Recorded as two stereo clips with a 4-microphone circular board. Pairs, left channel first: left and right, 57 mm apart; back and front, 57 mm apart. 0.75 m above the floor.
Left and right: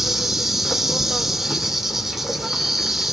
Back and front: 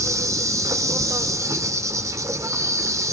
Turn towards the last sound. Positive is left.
turn(degrees=-5)